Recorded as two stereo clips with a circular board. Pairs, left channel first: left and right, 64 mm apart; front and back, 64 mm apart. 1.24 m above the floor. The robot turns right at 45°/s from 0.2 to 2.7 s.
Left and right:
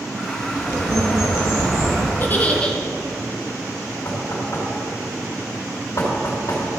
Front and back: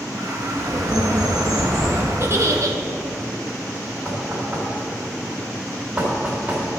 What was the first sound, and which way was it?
A bird, 145° left.